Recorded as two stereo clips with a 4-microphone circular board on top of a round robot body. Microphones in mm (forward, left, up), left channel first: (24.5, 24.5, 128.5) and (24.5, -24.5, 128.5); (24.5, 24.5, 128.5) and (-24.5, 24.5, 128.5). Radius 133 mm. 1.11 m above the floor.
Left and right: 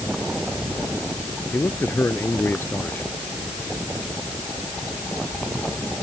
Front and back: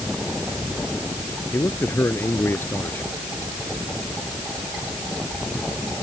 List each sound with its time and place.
1.5 s a man speaking: 45° left